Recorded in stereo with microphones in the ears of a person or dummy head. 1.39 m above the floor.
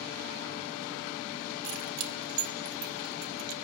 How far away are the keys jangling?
About 3 m.